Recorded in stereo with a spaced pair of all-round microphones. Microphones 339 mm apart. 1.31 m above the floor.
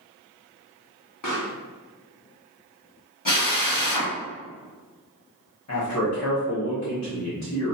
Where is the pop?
60° left (ahead or behind), 0.9 m.